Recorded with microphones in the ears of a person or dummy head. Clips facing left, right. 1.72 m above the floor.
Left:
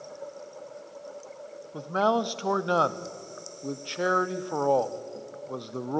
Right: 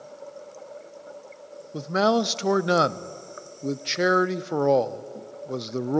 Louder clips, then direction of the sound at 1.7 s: Right 4 dB; 30° right (ahead or behind).